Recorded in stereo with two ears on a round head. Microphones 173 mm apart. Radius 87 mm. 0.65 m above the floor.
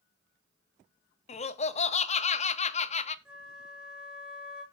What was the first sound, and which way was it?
Laughter, 35° left (ahead or behind).